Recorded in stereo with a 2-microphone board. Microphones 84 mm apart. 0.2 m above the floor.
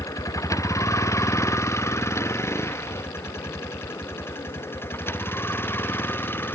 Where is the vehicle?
40° left (ahead or behind); by 6.5 s 25° left (ahead or behind).